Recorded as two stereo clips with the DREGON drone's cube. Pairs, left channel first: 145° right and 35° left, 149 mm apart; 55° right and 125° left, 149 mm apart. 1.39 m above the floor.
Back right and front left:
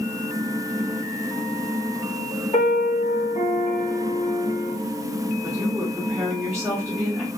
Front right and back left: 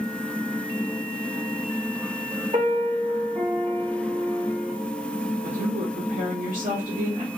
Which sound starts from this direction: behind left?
A woman speaking, at 5.4 s.